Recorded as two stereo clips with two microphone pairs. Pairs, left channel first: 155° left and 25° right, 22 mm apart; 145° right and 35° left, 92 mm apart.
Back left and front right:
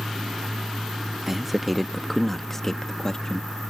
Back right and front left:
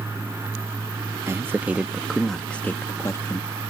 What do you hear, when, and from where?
1.3 s a man speaking: 45° left; by 3.5 s 165° right